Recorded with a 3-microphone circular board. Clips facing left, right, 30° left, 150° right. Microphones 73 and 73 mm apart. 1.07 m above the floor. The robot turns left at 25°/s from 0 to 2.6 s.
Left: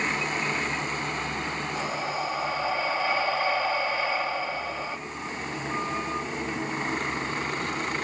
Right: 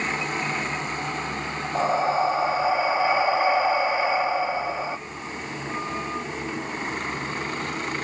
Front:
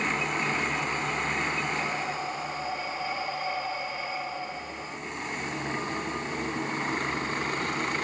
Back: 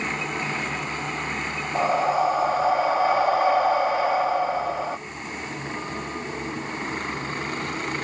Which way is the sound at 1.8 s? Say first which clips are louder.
Right 12 dB, back 10 dB; 135° right.